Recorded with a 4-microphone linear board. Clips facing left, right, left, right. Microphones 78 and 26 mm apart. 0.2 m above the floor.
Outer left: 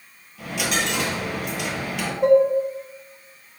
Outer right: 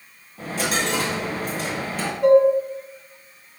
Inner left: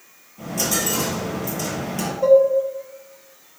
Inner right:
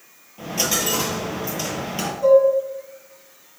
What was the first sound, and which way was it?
A dropped coin, 35° right (ahead or behind).